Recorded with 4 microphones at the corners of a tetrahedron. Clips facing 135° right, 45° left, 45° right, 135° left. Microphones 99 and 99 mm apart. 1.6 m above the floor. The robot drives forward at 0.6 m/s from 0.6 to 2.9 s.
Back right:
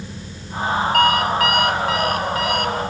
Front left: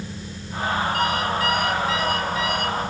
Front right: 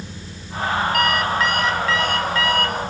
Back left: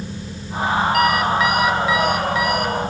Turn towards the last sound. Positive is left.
turn(degrees=-150)